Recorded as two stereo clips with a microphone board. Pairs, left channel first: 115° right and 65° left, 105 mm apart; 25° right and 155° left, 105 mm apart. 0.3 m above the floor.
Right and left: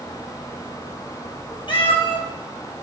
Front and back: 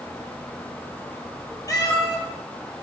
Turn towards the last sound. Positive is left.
turn(degrees=-75)